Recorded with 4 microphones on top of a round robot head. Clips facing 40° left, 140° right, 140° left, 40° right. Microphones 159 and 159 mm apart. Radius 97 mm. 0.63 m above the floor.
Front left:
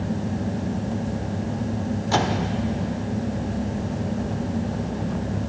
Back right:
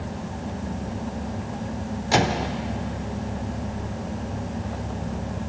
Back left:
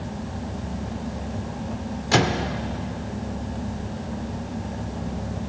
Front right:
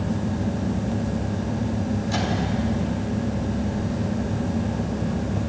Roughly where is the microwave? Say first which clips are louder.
Back right 2 dB, back left 3 dB; behind left.